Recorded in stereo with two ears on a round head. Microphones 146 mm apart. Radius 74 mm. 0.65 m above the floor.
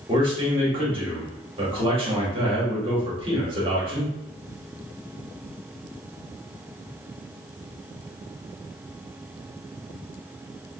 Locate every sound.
0.1 s a man speaking: 30° right (ahead or behind), 1.1 m